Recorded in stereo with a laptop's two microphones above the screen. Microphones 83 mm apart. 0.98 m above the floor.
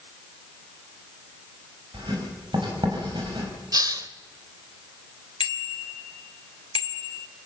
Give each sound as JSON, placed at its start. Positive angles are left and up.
{"t": 1.9, "sound": "writing", "side_deg": -65, "distance_m": 5.5}
{"t": 3.7, "sound": "a hiss", "side_deg": -50, "distance_m": 1.1}
{"t": 5.4, "sound": "a bicycle bell", "side_deg": 80, "distance_m": 2.0}